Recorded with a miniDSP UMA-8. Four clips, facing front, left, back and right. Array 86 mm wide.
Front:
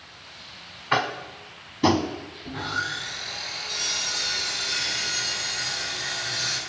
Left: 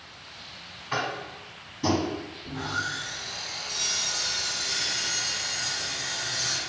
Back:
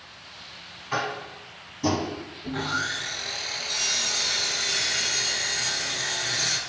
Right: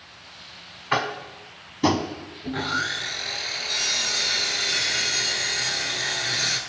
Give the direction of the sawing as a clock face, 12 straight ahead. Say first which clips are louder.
Right 6 dB, back 1 dB; 3 o'clock.